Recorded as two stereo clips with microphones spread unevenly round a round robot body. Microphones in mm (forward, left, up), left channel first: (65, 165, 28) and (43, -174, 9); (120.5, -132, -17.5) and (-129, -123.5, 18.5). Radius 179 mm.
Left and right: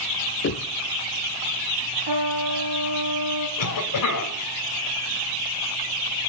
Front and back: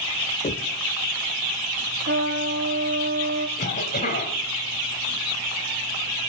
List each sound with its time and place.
0.4 s knocking: 40° left, 0.6 m
2.1 s a trumpet: 140° right, 1.8 m
3.6 s a cough: 60° left, 2 m